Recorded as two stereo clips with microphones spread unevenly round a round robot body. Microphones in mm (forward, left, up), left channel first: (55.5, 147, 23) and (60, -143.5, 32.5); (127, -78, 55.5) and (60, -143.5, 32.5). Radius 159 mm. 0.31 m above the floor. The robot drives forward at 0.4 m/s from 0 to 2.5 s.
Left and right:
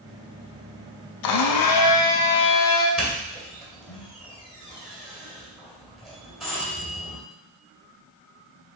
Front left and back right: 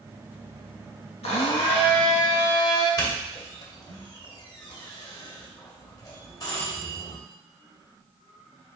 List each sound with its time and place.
1.2 s a blender: 85° left, 0.8 m; by 2.9 s 120° left, 0.9 m
3.0 s a doorbell: straight ahead, 2.5 m